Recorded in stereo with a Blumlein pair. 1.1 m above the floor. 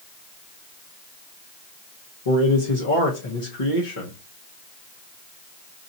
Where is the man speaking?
65° left, 1.4 m.